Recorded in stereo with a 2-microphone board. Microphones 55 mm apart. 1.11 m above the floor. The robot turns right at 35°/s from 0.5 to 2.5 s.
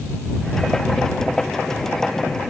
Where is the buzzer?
I don't hear a buzzer.